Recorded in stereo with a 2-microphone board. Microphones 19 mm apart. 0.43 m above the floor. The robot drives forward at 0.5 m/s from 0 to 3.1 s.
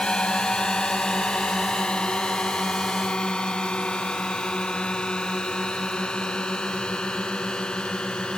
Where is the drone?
60° left (ahead or behind).